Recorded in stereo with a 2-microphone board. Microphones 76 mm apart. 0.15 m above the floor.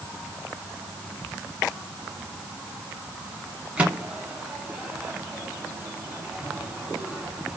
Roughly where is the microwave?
Centre.